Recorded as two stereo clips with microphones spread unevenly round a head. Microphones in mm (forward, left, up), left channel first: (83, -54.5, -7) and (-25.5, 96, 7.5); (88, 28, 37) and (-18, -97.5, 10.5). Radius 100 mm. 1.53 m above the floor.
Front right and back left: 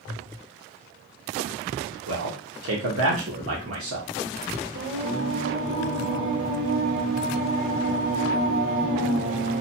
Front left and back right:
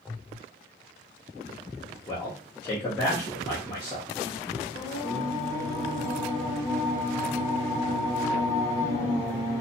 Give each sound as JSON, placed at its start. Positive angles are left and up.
{"t": 2.1, "sound": "a man speaking", "azimuth_deg": 130, "distance_m": 1.0}
{"t": 4.7, "sound": "singing", "azimuth_deg": 145, "distance_m": 1.7}